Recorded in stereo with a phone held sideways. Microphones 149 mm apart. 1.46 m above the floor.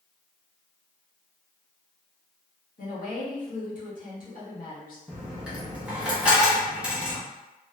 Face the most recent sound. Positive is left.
turn(degrees=-5)  # may be behind; listen again after turning